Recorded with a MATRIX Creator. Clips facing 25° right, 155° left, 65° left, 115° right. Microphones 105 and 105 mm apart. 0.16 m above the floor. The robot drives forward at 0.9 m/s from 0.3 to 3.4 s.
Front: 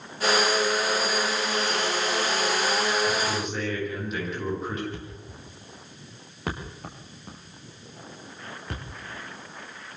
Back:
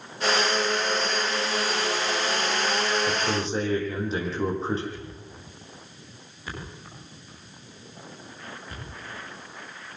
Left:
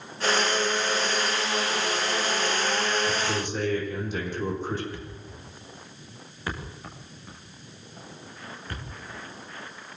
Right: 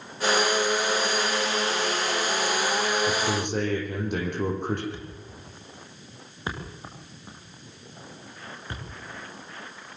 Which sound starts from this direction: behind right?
A man speaking, at 3.1 s.